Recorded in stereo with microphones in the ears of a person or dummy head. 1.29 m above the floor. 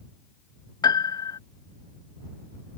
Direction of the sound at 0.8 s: 25° left (ahead or behind).